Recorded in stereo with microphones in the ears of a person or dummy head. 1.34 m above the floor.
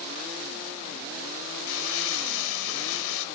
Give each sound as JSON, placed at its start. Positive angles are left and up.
{"t": 1.7, "sound": "crumpling", "side_deg": 75, "distance_m": 3.5}